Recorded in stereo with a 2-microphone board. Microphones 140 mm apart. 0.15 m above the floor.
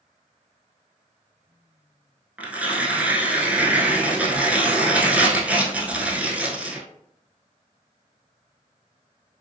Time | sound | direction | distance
2.4 | tearing paper | 10° right (ahead or behind) | 0.5 m